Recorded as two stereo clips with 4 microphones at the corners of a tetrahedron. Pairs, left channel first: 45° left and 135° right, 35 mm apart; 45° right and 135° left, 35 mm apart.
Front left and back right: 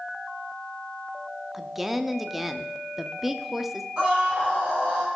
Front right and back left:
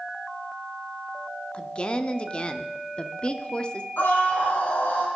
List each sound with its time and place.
1.5 s a woman speaking: 55° right, 0.7 m
4.0 s a scream: 70° right, 4.5 m